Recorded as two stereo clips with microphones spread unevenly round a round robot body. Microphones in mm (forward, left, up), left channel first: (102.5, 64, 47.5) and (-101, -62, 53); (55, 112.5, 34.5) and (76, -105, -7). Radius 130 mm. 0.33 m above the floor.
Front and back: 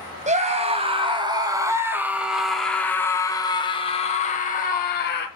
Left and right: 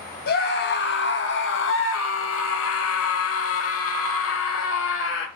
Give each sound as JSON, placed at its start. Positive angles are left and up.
{"t": 0.3, "sound": "a scream", "azimuth_deg": 150, "distance_m": 2.5}